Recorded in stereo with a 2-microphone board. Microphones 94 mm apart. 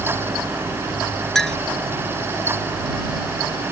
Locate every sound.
1.4 s a clink: 5° left (ahead or behind)